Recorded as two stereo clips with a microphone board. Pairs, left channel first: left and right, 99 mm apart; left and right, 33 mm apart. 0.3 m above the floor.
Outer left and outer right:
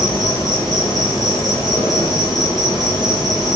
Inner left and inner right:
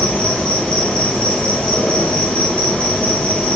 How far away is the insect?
About 1.2 m.